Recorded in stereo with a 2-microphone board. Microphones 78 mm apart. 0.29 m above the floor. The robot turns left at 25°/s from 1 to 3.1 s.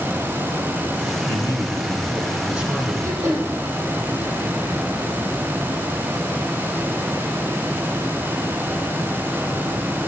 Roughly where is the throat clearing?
Right.